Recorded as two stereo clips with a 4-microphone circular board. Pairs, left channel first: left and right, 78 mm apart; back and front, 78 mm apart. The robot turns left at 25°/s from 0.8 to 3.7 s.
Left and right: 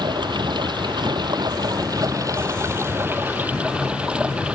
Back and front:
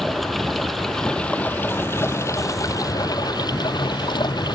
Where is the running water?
95° right; by 4.6 s 165° right.